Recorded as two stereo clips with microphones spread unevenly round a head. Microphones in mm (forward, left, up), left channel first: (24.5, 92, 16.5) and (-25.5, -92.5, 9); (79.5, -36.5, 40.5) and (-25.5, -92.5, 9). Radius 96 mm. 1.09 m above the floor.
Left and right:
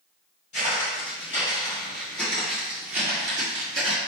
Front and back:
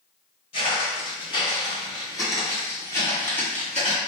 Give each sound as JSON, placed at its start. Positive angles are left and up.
{"t": 0.5, "sound": "footsteps", "azimuth_deg": 30, "distance_m": 1.9}